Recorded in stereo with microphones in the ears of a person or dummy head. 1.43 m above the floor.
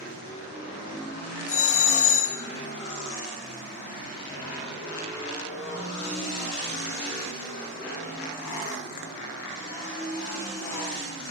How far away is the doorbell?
About 0.7 m.